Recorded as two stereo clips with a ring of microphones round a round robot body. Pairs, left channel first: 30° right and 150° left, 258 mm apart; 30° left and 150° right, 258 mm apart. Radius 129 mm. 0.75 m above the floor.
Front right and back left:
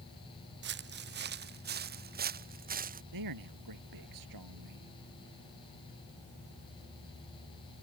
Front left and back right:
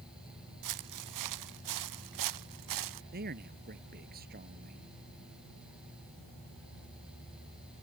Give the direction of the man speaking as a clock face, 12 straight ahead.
7 o'clock.